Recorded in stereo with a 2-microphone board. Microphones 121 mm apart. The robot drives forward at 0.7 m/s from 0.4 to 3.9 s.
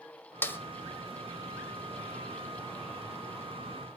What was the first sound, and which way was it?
A snare drum, 15° left (ahead or behind).